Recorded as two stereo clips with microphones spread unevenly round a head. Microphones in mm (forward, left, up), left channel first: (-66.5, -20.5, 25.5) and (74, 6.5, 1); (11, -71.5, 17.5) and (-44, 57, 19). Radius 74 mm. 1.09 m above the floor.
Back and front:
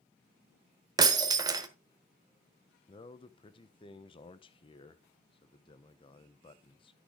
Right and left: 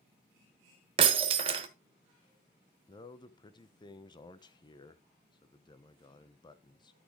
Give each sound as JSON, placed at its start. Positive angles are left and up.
{"t": 1.0, "sound": "breaking glass", "azimuth_deg": 80, "distance_m": 0.9}
{"t": 2.9, "sound": "a man speaking", "azimuth_deg": -115, "distance_m": 1.0}